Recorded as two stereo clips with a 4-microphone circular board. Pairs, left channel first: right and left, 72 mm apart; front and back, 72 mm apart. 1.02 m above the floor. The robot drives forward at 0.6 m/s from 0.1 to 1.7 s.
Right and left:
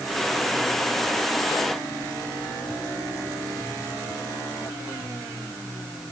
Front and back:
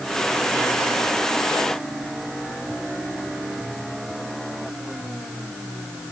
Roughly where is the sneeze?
I don't hear a sneeze.